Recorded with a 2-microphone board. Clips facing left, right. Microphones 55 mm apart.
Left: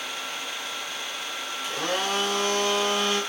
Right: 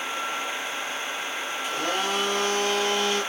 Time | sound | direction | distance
1.6 | a blender | 65° left (ahead or behind) | 1.5 m